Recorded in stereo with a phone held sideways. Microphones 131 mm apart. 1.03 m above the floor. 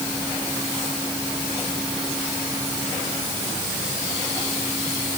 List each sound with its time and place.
Only background noise.